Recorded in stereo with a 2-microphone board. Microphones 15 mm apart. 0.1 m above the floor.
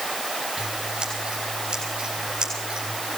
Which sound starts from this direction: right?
Scissors, at 0.6 s.